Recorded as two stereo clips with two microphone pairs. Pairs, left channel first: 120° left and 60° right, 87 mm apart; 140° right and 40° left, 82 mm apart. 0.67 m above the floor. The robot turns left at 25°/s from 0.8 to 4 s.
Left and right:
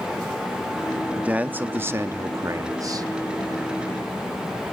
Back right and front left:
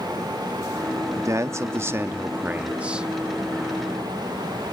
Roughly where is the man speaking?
Ahead.